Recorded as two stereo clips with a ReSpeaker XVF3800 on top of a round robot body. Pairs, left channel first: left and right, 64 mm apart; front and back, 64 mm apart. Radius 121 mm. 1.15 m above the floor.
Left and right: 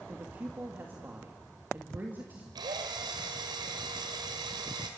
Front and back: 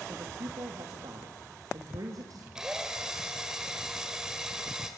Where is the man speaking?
155° right, 2.5 m.